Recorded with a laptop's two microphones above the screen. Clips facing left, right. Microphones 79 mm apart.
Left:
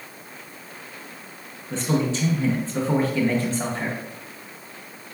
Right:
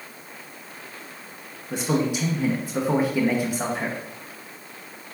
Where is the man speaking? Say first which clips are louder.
Even; 15° right (ahead or behind), 0.6 m.